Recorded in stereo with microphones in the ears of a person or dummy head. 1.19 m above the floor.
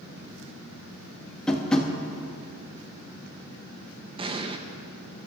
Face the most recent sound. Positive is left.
turn(degrees=-25)  # may be behind; listen again after turning